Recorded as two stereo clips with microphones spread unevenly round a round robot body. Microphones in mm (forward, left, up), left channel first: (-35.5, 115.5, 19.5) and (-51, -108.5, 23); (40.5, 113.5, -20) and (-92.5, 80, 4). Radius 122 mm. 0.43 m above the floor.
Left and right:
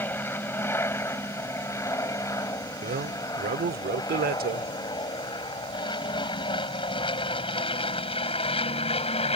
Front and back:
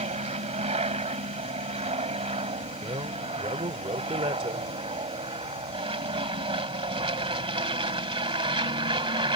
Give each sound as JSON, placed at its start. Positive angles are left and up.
{"t": 0.0, "sound": "an aircraft", "azimuth_deg": 165}
{"t": 2.8, "sound": "a man speaking", "azimuth_deg": -115}